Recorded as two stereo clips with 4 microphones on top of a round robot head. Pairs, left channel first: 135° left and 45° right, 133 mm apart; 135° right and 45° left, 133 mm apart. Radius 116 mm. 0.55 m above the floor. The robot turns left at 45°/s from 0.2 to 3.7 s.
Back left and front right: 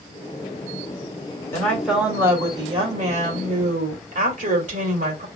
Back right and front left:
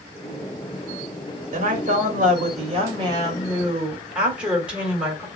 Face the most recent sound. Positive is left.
turn(degrees=-35)